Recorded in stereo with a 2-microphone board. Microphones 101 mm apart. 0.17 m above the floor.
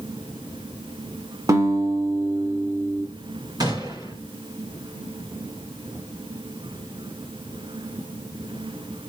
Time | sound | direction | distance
1.5 | a guitar | 35° right (ahead or behind) | 1.5 m
3.6 | a gunshot | 40° right (ahead or behind) | 3.5 m